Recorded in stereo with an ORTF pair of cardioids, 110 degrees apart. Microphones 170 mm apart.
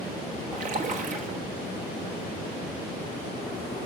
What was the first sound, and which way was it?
A splash, 50° right.